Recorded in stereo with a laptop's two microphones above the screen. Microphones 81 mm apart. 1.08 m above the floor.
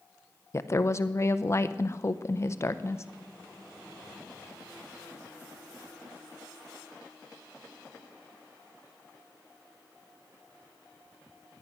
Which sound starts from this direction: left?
A woman speaking, at 0.5 s.